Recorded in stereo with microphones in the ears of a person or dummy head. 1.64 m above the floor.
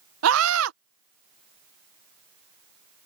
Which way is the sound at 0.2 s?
75° right (ahead or behind).